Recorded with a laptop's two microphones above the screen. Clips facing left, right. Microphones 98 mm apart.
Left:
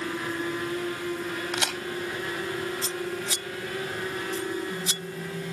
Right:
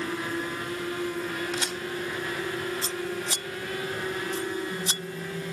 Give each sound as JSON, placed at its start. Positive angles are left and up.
{"t": 1.5, "sound": "a crack", "side_deg": 80}
{"t": 2.8, "sound": "scissors", "side_deg": -45}